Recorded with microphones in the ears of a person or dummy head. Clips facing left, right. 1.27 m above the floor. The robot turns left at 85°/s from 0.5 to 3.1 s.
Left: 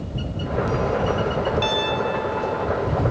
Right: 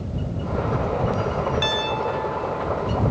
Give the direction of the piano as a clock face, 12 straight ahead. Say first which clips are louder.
Left 2 dB; 5 o'clock.